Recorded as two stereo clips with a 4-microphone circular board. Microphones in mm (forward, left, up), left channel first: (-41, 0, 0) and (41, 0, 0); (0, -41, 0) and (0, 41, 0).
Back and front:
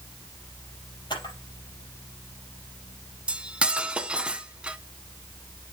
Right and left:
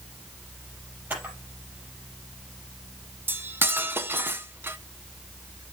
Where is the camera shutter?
160° left, 4.5 m.